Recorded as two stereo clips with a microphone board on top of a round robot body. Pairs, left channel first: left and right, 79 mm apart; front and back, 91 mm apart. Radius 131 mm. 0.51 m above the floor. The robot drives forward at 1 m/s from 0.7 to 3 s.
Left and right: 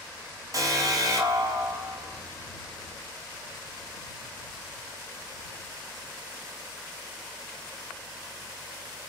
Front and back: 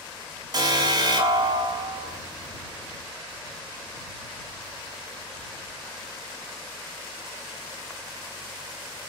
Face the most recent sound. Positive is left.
turn(degrees=-145)